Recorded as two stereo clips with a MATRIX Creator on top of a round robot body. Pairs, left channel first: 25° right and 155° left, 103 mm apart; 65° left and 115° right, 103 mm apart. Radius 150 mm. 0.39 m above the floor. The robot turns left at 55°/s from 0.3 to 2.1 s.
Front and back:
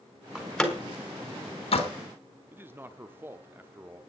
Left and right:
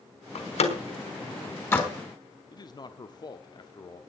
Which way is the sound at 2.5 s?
95° left.